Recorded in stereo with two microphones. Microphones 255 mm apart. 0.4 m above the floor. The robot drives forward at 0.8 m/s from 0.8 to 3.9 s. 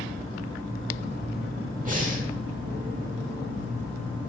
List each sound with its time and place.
1.9 s breathing: 30° right (ahead or behind), 1.4 m